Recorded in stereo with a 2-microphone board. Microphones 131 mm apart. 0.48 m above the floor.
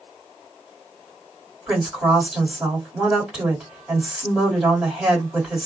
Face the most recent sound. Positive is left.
turn(degrees=-10)  # may be behind; listen again after turning